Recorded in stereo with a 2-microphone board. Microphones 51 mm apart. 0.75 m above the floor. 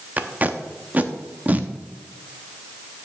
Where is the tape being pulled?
35° right (ahead or behind), 0.8 m.